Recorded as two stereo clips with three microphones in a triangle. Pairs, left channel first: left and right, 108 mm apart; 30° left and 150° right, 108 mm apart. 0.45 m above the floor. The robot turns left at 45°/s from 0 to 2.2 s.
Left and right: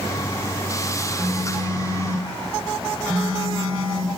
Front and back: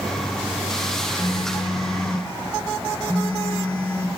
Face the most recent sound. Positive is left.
turn(degrees=-40)